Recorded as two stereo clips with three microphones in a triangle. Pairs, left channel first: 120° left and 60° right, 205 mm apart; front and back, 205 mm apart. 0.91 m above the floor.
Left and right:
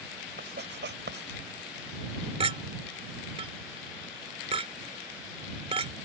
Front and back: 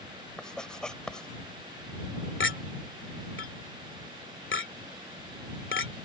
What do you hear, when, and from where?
0.4 s writing: 85° right
2.4 s a clink: straight ahead